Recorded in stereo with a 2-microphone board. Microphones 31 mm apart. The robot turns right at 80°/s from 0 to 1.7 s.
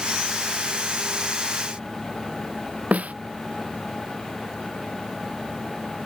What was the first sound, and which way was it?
A snare drum, 55° right (ahead or behind).